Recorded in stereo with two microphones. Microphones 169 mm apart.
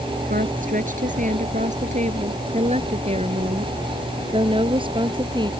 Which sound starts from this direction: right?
A woman speaking, at 0.3 s.